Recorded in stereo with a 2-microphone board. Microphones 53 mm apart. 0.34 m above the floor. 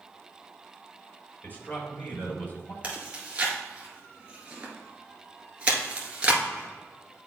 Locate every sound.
1.4 s a man speaking: 35° left (ahead or behind), 2.5 m
2.8 s chewing: 20° right (ahead or behind), 1.7 m